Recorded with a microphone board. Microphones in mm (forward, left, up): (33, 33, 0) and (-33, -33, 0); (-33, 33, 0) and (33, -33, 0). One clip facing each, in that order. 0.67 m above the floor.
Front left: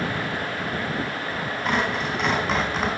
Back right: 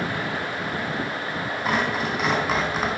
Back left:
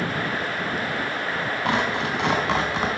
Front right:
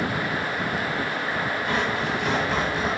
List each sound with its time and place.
1.6 s tearing paper: 140° left, 3.5 m